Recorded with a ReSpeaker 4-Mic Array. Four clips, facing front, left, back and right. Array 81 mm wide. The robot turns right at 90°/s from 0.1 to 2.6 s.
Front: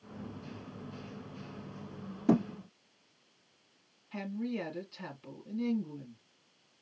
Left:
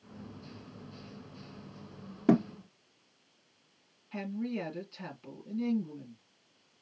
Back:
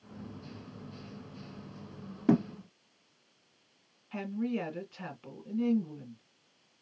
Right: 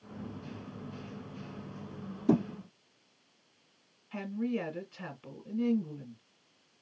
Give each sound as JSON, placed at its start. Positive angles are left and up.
{"t": 2.3, "sound": "a thud", "azimuth_deg": 105, "distance_m": 1.1}
{"t": 4.1, "sound": "a woman speaking", "azimuth_deg": -150, "distance_m": 1.5}